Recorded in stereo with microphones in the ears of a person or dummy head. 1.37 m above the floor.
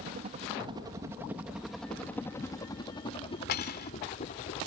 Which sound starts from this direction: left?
Cutlery clinking, at 3.5 s.